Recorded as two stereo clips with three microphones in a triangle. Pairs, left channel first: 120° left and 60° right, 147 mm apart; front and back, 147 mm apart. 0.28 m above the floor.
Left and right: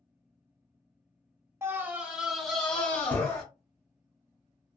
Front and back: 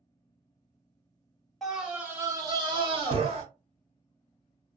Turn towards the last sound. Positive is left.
turn(degrees=-175)